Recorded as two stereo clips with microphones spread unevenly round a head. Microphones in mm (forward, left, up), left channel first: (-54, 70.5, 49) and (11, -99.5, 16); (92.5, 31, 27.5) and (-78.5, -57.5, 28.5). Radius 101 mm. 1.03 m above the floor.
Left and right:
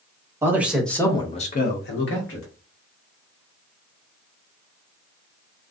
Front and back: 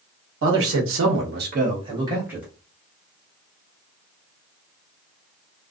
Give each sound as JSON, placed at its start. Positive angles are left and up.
{"t": 0.4, "sound": "a man speaking", "azimuth_deg": -140, "distance_m": 1.0}